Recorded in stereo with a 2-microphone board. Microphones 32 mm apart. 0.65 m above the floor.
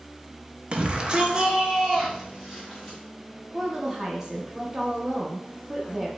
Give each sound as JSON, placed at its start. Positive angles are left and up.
{"t": 0.7, "sound": "a shout", "side_deg": -35, "distance_m": 0.6}
{"t": 3.5, "sound": "a woman speaking", "side_deg": -15, "distance_m": 0.7}